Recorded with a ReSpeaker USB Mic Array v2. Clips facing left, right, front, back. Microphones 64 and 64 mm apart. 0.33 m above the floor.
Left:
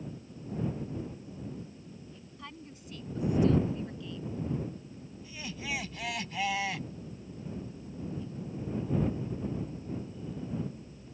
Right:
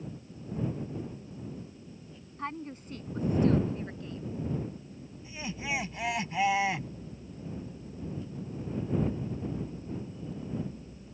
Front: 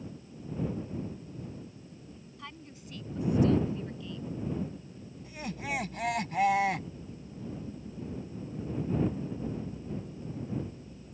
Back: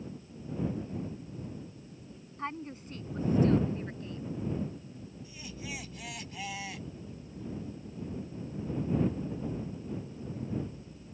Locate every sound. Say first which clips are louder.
2.4 s a woman speaking: right 11 dB, back 10 dB; 130° right; by 4.4 s 135° right
5.2 s laughter: right 3 dB, front 8 dB; 25° right